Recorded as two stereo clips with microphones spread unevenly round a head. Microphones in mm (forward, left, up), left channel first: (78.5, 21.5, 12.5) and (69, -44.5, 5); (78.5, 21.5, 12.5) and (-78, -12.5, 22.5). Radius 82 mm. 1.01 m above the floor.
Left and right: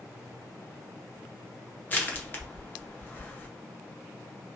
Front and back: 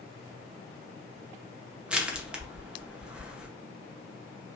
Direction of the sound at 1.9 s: 110° left.